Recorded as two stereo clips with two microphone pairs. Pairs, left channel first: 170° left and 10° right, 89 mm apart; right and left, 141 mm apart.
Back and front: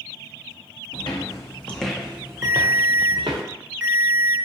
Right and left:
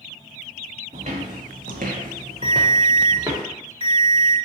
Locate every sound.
0.9 s footsteps: 135° left, 0.8 m; by 3.4 s 25° left, 1.0 m
2.4 s a ringtone: 75° right, 1.1 m